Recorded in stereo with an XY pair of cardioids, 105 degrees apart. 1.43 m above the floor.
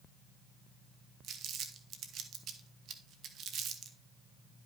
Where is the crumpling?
65° right, 1.3 m.